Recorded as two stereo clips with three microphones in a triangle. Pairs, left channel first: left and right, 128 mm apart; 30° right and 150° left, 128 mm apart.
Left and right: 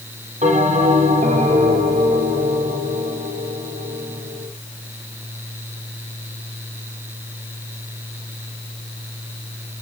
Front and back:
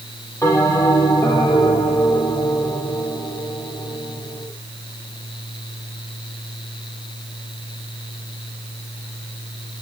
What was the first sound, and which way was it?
A bell, 95° right.